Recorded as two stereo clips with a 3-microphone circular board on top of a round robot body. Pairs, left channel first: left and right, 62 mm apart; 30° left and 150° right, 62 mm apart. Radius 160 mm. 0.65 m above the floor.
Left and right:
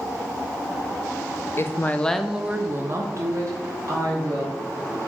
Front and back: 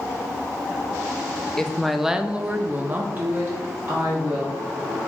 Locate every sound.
1.6 s a woman speaking: 110° left, 0.7 m; by 4.6 s 95° right, 1.4 m